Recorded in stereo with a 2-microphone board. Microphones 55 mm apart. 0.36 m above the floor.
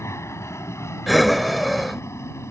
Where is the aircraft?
60° left (ahead or behind).